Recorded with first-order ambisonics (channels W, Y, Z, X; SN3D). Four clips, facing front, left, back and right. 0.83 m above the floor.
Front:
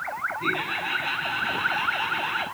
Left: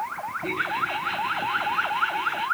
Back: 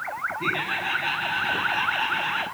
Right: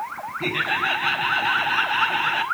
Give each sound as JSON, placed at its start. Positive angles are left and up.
{"t": 0.4, "sound": "laughter", "azimuth_deg": -105, "distance_m": 5.5}